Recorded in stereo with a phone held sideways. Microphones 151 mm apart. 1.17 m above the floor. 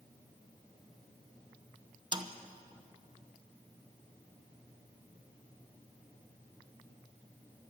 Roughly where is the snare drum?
Right.